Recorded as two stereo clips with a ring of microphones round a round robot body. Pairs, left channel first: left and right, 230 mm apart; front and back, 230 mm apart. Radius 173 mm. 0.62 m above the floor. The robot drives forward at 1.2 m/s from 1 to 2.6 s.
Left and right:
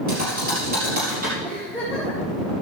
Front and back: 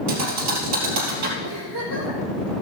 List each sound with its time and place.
0.1 s a thud: 155° right, 3 m; by 1.3 s 160° right, 3 m
1.4 s a giggle: 175° right, 4.5 m